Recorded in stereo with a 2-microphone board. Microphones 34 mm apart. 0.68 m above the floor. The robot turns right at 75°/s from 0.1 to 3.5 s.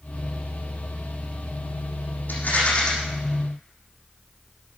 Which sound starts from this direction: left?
A rattle, at 2.3 s.